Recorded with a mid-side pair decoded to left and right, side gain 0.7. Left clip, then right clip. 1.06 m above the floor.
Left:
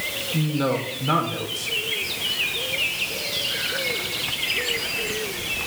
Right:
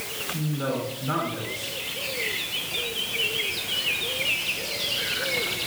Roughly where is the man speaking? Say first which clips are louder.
Left 5 dB; ahead left.